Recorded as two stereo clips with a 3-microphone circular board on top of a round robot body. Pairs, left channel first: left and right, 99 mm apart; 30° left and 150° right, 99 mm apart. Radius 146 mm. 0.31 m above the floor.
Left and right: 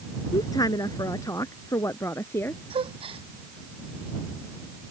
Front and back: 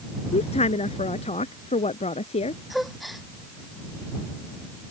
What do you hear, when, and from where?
0.3 s a woman speaking: 35° left; by 2.6 s 20° left
2.7 s a gasp: 60° right